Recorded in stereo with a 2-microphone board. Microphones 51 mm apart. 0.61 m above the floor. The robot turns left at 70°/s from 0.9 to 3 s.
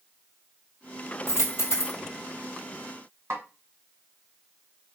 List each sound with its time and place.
1.3 s a dropped coin: 105° left, 2 m; by 2.0 s 55° left, 2 m
3.3 s a snare drum: 65° right (ahead or behind), 1.9 m